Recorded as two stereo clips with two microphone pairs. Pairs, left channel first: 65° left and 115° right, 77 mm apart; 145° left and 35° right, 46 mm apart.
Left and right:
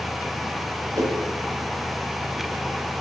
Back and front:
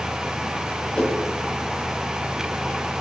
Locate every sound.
0.9 s a whoosh: 155° right, 2 m